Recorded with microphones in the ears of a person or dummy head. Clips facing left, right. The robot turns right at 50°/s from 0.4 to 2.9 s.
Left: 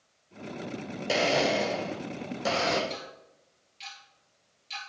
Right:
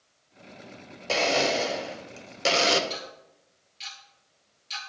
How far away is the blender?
About 0.6 m.